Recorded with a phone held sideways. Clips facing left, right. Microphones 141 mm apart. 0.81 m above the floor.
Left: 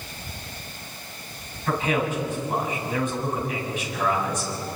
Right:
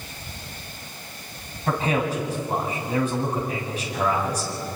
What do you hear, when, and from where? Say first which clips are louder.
1.7 s a man speaking: right 1 dB; 35° right (ahead or behind), 6.5 m